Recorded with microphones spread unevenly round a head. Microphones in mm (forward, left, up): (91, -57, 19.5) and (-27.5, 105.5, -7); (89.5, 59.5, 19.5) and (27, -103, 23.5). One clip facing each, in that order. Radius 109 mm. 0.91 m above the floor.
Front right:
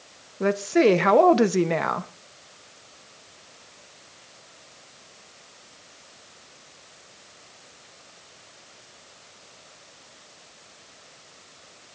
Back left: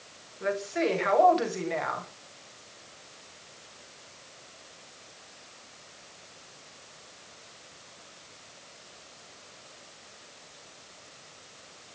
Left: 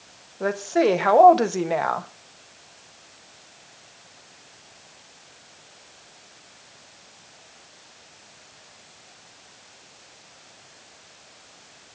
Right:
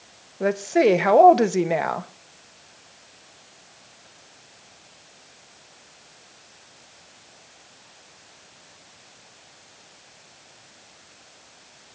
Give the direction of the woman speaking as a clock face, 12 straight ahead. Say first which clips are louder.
Front right 10 dB, right 2 dB; 1 o'clock.